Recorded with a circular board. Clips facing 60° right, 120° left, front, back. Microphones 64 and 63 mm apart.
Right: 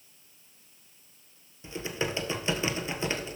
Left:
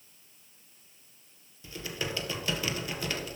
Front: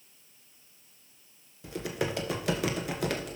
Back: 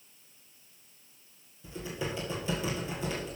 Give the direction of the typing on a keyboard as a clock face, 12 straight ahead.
12 o'clock.